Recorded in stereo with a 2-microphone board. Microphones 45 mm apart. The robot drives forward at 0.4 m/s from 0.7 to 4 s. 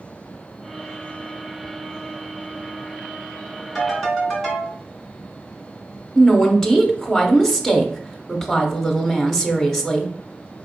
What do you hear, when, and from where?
3.8 s a ringtone: centre (ahead or behind), 2.0 m
6.2 s a woman speaking: 10° left (ahead or behind), 0.7 m